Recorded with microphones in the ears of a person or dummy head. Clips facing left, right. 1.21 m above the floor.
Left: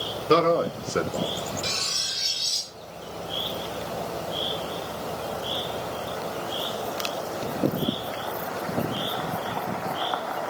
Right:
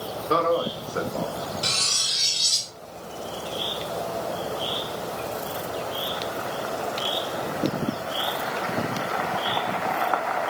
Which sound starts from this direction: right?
Cutlery clinking, at 1.6 s.